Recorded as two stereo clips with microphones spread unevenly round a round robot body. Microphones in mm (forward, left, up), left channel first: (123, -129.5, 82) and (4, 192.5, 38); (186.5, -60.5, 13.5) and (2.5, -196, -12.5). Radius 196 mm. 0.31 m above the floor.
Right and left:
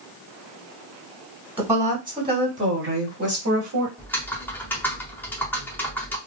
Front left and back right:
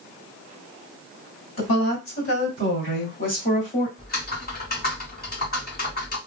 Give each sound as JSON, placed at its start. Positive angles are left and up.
{"t": 1.6, "sound": "a woman speaking", "azimuth_deg": 35, "distance_m": 1.9}
{"t": 4.0, "sound": "typing on a keyboard", "azimuth_deg": 20, "distance_m": 1.6}